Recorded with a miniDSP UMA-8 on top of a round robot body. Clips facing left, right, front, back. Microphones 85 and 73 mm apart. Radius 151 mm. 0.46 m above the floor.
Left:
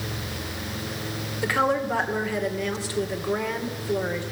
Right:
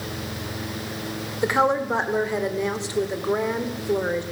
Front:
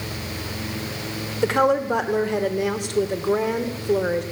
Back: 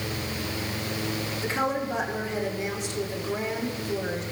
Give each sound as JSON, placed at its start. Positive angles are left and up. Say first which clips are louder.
{"t": 1.4, "sound": "a woman speaking", "louder": "right 3 dB, front 10 dB", "azimuth_deg": -25, "distance_m": 2.5}